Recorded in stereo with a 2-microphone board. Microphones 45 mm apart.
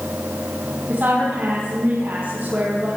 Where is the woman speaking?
50° right (ahead or behind), 5 m.